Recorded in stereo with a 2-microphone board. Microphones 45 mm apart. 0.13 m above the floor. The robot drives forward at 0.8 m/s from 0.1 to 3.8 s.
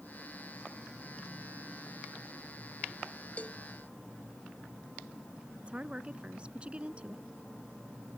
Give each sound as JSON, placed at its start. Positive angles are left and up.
{"t": 3.4, "sound": "a cowbell", "side_deg": 30}
{"t": 5.6, "sound": "a woman speaking", "side_deg": -25}